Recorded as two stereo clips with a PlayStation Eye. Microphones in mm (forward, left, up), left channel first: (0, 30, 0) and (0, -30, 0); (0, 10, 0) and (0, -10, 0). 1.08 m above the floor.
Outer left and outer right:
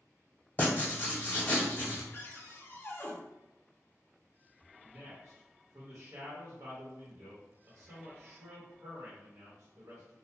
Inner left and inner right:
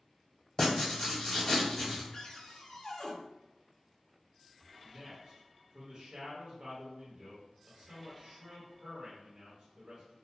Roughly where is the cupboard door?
Left.